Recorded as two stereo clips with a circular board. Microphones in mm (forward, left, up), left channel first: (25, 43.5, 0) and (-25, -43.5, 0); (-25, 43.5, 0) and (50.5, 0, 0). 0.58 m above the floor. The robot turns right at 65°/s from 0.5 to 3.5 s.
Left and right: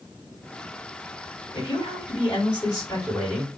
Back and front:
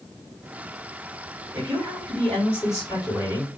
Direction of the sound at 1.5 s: 25° left.